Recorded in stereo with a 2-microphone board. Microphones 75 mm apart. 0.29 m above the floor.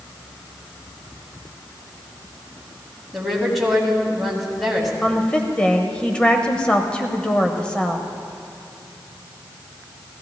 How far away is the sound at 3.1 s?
About 2 m.